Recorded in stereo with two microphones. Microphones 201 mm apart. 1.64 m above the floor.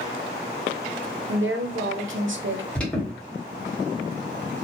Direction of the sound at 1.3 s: 75° right (ahead or behind).